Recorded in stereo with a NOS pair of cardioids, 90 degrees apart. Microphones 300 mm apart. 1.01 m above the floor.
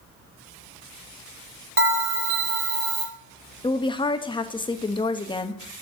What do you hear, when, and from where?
1.8 s a bell: 40° right, 3.5 m
3.6 s a woman speaking: 15° left, 0.9 m